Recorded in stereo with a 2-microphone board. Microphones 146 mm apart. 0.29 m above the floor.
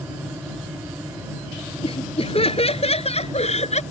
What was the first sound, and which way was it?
Laughter, 40° left (ahead or behind).